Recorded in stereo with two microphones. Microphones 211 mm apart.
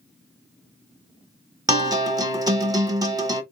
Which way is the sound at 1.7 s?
15° right (ahead or behind).